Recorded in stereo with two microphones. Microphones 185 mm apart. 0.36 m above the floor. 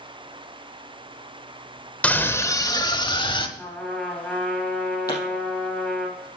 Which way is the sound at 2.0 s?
5° left (ahead or behind).